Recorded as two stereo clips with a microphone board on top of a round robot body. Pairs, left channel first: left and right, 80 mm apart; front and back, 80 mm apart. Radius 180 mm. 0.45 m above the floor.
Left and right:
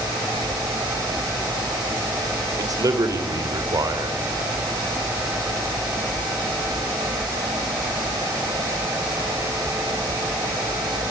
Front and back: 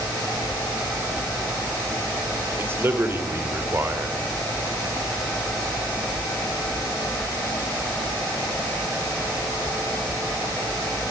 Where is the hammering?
No hammering in this recording.